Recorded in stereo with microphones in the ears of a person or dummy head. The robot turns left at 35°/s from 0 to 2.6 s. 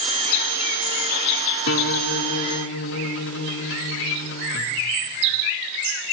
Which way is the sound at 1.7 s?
105° left.